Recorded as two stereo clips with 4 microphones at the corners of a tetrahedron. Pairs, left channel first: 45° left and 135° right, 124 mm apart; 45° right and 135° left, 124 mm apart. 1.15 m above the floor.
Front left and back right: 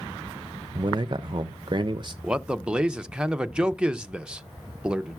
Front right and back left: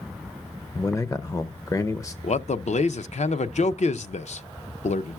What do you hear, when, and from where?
0.8 s a man speaking: 95° right, 0.5 m
2.2 s a man speaking: 55° right, 0.5 m